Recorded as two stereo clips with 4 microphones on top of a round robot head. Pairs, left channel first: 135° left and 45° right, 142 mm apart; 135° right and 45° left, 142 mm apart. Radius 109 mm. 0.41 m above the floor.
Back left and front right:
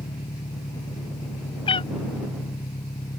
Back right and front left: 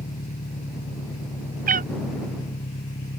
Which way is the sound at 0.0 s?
165° right.